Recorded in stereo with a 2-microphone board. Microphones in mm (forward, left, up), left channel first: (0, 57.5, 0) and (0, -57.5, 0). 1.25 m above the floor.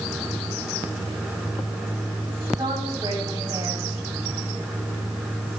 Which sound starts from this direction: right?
A woman speaking, at 2.6 s.